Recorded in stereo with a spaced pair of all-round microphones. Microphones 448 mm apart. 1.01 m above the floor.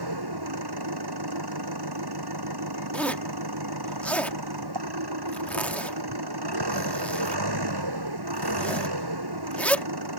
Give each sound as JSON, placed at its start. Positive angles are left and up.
{"t": 0.0, "sound": "an engine running", "side_deg": -55}
{"t": 2.9, "sound": "a zipper", "side_deg": 5}